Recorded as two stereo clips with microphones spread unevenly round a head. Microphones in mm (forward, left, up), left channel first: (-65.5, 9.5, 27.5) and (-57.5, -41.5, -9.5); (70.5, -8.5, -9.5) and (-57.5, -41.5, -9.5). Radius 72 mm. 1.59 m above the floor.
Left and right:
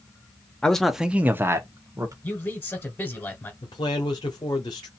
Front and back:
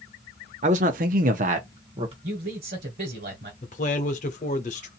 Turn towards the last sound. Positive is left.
turn(degrees=60)